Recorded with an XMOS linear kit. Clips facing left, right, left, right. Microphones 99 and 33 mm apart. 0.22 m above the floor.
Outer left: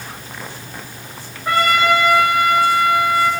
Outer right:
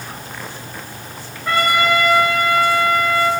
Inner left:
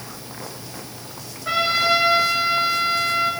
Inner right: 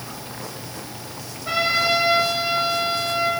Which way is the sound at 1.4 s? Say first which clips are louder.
Outer left 1 dB, inner left 1 dB; 15° left (ahead or behind).